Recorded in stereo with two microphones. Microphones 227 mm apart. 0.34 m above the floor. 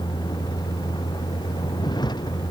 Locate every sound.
0.0 s a vehicle: 20° left (ahead or behind)